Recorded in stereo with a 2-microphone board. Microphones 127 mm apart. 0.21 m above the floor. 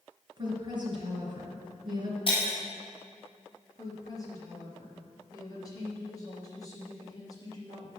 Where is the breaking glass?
45° left (ahead or behind), 3 m.